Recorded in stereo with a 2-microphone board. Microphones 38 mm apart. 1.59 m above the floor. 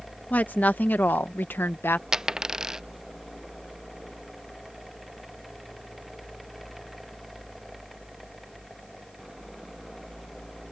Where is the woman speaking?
50° left (ahead or behind); by 2.0 s 75° left (ahead or behind).